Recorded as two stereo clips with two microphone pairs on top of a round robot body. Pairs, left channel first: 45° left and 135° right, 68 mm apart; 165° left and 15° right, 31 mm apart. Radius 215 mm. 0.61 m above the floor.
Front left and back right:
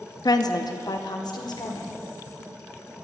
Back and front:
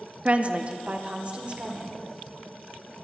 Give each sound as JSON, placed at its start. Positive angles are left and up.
{"t": 0.2, "sound": "a woman speaking", "azimuth_deg": 30, "distance_m": 1.0}